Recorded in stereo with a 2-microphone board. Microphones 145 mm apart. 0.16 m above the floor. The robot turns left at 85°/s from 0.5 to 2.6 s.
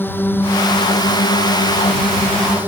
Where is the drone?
165° left; by 2.7 s 15° right.